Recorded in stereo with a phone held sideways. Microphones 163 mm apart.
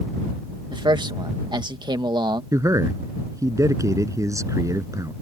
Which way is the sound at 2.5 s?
20° right (ahead or behind).